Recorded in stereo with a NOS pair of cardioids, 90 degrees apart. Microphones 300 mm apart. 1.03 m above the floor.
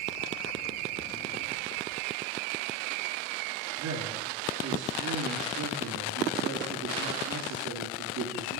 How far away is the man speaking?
About 3 m.